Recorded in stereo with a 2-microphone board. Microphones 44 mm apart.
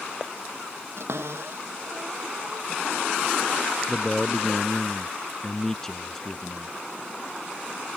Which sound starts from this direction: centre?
A man speaking, at 3.9 s.